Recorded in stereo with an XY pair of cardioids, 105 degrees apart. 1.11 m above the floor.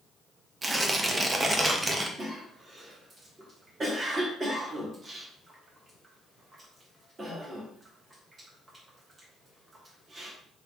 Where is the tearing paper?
25° right, 0.8 m.